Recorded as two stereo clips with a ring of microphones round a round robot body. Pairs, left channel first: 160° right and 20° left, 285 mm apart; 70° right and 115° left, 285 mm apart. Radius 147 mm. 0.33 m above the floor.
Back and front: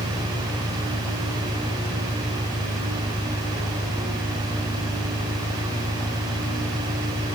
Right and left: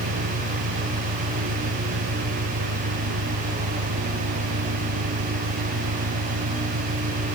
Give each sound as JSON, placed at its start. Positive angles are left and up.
{"t": 0.0, "sound": "an engine running", "azimuth_deg": 130}